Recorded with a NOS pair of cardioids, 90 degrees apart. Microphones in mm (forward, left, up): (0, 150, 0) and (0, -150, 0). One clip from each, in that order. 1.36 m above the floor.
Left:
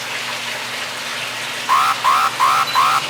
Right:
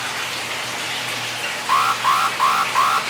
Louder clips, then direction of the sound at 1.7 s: Left 3 dB; 20° left.